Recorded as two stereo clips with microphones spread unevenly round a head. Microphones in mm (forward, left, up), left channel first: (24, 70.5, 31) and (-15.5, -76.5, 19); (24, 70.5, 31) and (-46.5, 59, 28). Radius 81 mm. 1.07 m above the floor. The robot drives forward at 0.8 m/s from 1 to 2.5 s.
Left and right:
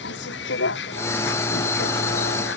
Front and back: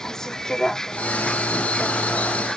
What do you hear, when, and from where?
0.0 s a vehicle: 90° left; by 2.6 s 95° left